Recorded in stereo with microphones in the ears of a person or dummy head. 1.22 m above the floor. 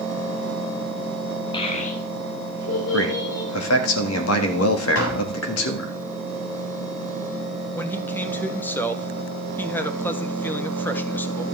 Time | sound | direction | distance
1.5 | a child speaking | 25° left (ahead or behind) | 1.1 m
2.9 | a man speaking | 85° left | 1.7 m
5.0 | tapping | 80° left | 4 m
7.8 | a man speaking | 10° left (ahead or behind) | 1.0 m